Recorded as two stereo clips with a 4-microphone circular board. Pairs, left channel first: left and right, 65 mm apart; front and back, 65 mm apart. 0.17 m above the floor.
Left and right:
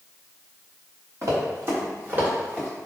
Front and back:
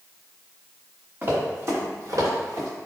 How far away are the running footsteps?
About 1.9 m.